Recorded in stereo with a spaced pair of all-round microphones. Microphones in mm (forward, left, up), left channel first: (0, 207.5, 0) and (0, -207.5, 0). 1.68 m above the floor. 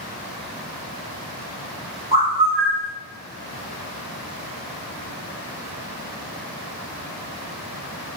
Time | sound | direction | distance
2.1 | a bird | 15° right (ahead or behind) | 1.7 m